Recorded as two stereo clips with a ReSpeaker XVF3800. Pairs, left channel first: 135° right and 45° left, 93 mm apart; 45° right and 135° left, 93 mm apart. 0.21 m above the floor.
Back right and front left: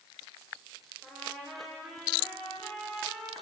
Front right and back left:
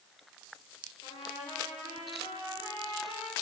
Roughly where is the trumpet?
Ahead right.